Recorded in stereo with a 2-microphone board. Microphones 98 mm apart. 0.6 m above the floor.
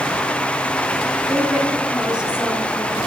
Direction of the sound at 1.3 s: 15° right (ahead or behind).